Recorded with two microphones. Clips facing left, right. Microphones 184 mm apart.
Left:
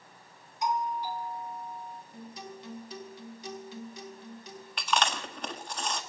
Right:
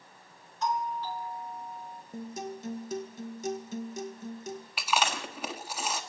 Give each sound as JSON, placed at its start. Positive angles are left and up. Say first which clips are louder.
{"t": 0.6, "sound": "a doorbell", "louder": "left 1 dB", "side_deg": 15, "distance_m": 2.0}
{"t": 2.1, "sound": "a guitar", "louder": "right 10 dB", "side_deg": -45, "distance_m": 1.6}
{"t": 4.8, "sound": "chewing", "louder": "left 1 dB", "side_deg": -5, "distance_m": 1.5}